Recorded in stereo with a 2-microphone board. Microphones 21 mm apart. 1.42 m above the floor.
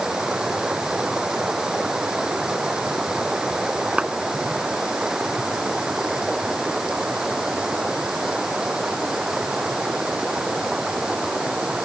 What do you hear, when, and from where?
0.0 s running water: 35° right (ahead or behind)
4.0 s a clap: 70° right (ahead or behind)